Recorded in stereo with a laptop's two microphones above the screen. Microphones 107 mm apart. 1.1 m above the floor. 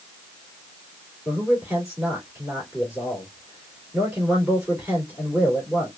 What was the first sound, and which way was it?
A man speaking, 10° right (ahead or behind).